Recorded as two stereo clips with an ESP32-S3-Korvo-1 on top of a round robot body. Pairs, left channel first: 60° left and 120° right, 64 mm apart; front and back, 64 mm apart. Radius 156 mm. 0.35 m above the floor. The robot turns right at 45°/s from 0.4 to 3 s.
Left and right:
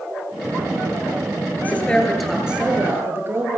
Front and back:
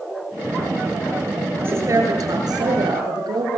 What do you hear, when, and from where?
1.6 s a woman speaking: 120° left, 9.5 m; by 3.6 s 175° right, 9.5 m